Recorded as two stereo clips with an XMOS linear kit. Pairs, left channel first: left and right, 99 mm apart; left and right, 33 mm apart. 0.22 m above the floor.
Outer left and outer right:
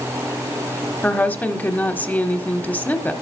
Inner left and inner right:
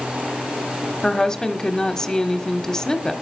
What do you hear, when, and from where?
1.0 s a woman speaking: 20° left (ahead or behind), 1.0 m